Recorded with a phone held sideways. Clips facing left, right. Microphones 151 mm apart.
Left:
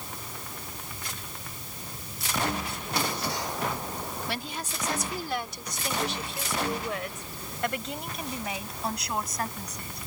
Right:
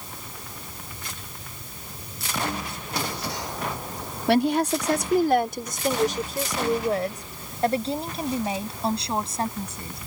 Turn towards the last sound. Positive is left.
turn(degrees=-30)  # may be behind; listen again after turning